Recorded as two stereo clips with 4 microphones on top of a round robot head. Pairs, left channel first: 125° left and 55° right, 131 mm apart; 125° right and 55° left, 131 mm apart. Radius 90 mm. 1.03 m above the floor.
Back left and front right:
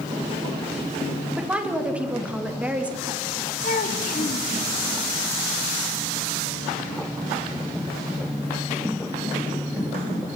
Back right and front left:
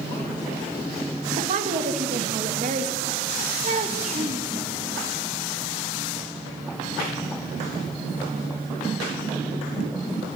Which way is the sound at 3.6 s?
95° left.